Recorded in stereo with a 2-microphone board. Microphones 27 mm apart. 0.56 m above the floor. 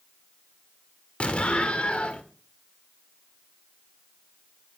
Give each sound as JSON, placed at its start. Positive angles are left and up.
{"t": 1.2, "sound": "an explosion", "side_deg": 50, "distance_m": 1.7}